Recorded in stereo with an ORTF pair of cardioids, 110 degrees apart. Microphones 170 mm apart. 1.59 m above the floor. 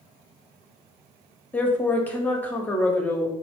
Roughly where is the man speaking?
Ahead.